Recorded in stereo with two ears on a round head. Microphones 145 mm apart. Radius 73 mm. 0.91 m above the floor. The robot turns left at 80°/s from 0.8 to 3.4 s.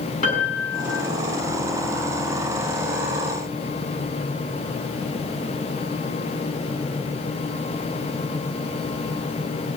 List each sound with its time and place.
0.2 s a piano: 50° left (ahead or behind), 7.5 m; by 1.1 s 70° left (ahead or behind), 7.5 m